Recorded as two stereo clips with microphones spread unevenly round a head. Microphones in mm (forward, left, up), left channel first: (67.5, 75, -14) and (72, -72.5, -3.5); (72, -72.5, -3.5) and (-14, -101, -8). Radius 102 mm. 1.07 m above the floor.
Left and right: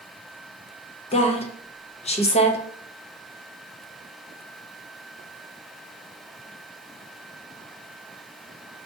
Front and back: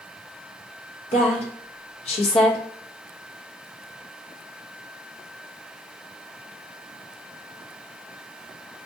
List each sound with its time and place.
1.1 s a woman speaking: 45° left, 0.8 m